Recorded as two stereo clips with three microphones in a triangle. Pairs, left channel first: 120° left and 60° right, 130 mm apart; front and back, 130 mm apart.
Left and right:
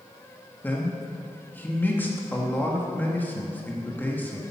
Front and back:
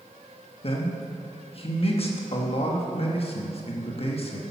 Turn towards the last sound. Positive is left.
turn(degrees=45)